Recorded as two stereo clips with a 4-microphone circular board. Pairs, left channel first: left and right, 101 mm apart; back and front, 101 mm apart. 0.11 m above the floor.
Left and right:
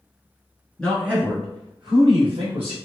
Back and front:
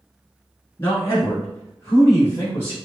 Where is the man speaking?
160° left, 1.1 m; by 2.8 s 115° right, 3 m.